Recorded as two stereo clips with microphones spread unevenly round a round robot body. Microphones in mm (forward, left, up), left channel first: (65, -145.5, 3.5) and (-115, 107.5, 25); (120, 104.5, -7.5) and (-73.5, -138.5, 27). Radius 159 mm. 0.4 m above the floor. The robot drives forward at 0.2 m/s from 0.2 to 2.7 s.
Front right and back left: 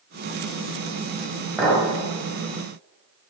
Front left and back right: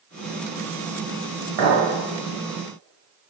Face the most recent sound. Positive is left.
turn(degrees=-150)